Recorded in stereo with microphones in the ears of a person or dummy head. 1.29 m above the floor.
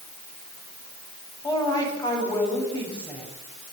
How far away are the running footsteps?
I don't hear running footsteps.